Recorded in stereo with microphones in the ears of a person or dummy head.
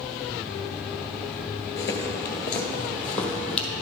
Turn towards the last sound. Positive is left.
turn(degrees=5)  # may be behind; listen again after turning